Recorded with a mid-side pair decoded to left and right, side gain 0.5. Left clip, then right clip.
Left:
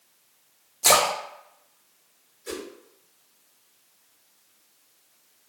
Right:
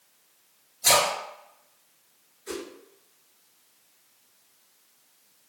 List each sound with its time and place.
0.8 s a splash: 65° left, 1.3 m
2.5 s a whoosh: 60° left, 1.4 m